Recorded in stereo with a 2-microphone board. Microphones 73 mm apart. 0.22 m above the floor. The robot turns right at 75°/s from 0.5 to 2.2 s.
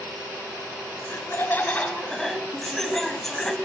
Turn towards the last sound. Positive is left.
turn(degrees=170)